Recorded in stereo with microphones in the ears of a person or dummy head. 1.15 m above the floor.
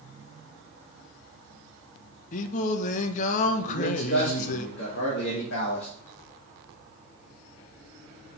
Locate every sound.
2.3 s singing: 45° left (ahead or behind), 0.7 m
3.7 s a man speaking: 60° left (ahead or behind), 2 m